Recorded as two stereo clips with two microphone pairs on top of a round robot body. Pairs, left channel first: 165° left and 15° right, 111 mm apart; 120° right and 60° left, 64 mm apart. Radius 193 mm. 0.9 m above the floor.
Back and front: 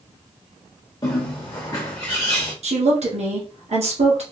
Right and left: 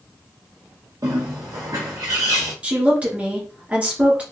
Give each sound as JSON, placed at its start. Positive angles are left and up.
{"t": 1.0, "sound": "a bird", "azimuth_deg": 105, "distance_m": 0.5}
{"t": 2.6, "sound": "a woman speaking", "azimuth_deg": -10, "distance_m": 1.9}